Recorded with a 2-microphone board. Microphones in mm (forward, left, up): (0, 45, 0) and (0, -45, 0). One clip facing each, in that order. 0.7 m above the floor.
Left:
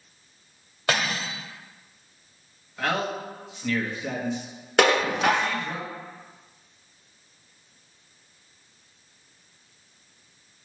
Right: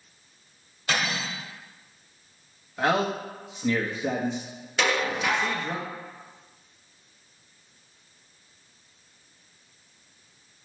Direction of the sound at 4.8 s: 55° left (ahead or behind).